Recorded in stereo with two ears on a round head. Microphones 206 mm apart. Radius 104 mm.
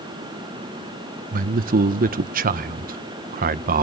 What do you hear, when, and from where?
1.3 s a man speaking: 40° right (ahead or behind), 0.5 m